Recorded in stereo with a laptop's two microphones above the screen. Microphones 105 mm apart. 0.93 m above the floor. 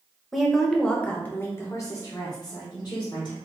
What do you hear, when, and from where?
0.3 s a woman speaking: centre (ahead or behind), 1.0 m; by 3.4 s 40° left (ahead or behind), 1.4 m